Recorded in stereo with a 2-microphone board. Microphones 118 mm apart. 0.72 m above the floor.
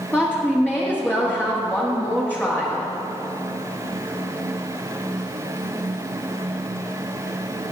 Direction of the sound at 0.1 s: 15° left (ahead or behind).